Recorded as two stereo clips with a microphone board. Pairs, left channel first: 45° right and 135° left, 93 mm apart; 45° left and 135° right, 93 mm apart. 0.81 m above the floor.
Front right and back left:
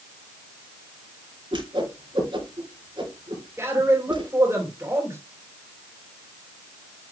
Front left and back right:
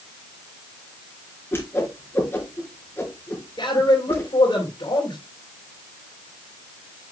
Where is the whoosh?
110° left, 3.5 m.